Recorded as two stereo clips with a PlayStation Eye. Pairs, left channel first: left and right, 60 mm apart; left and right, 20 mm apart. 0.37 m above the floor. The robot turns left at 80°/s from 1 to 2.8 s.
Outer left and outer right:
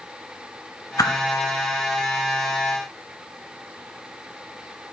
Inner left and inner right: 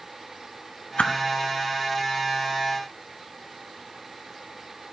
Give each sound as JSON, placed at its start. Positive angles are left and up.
{"t": 1.0, "sound": "a whoosh", "side_deg": 75, "distance_m": 1.0}